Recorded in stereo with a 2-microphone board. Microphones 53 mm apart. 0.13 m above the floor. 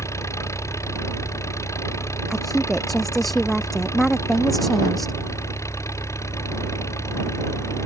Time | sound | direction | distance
0.0 | an engine running | 65° left (ahead or behind) | ?
2.3 | a woman speaking | 5° left (ahead or behind) | ?